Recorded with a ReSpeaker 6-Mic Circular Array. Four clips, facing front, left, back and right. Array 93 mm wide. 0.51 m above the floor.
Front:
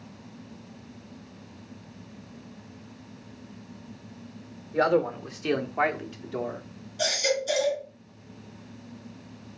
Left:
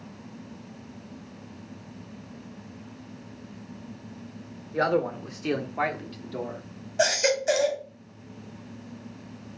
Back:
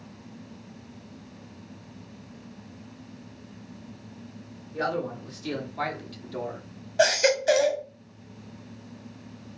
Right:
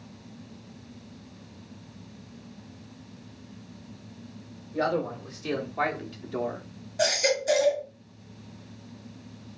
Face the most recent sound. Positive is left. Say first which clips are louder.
# left 2 dB, back 6 dB
turn(degrees=160)